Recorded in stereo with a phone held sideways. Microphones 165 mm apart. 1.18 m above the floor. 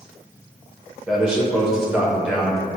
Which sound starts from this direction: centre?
A man speaking, at 1.1 s.